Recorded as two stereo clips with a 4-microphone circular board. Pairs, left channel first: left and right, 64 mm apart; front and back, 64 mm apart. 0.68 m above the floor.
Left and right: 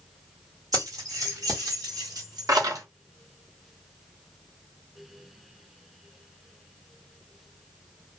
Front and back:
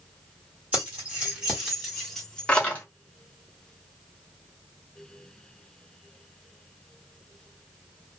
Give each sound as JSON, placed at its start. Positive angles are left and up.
{"t": 0.7, "sound": "keys jangling", "azimuth_deg": -115, "distance_m": 1.4}